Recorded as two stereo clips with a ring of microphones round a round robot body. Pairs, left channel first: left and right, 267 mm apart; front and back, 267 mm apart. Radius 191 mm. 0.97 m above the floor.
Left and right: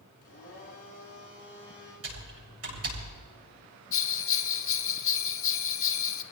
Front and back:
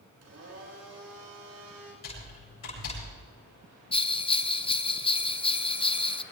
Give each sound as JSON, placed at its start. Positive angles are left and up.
{"t": 0.2, "sound": "a blender", "azimuth_deg": 155, "distance_m": 5.0}
{"t": 2.0, "sound": "typing on a keyboard", "azimuth_deg": -55, "distance_m": 9.5}
{"t": 3.9, "sound": "a bell", "azimuth_deg": 65, "distance_m": 1.0}